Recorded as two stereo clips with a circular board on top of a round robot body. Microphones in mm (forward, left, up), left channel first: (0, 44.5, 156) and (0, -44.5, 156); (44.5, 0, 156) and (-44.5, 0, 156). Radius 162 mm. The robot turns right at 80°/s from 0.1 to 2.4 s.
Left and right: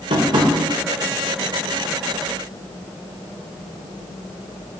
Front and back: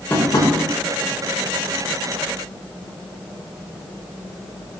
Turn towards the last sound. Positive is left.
turn(degrees=115)